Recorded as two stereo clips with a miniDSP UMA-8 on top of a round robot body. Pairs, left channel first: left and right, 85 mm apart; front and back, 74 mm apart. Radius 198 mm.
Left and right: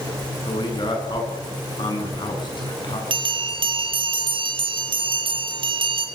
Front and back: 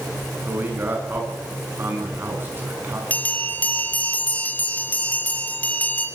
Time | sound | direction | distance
0.5 | a man speaking | 115° left | 8 m
3.1 | a bell | 70° right | 4 m